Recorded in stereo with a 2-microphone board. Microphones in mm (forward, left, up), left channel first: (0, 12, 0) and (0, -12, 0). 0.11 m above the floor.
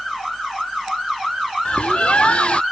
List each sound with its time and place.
1.6 s a bird: 55° left (ahead or behind)